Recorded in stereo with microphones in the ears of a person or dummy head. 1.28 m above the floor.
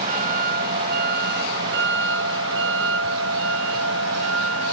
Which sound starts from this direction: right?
A vehicle, at 0.0 s.